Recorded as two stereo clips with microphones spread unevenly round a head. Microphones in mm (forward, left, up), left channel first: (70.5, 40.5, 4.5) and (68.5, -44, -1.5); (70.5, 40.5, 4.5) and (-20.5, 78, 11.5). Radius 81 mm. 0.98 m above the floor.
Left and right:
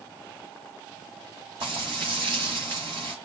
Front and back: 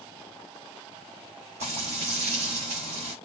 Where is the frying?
160° right, 2.5 m.